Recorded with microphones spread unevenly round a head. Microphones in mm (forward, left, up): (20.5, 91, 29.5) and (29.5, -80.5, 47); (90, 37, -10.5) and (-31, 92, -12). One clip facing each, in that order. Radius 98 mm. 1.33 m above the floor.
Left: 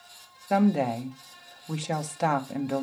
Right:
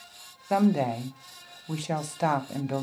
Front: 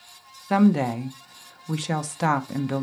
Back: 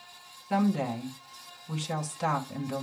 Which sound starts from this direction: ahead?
A woman speaking, at 0.5 s.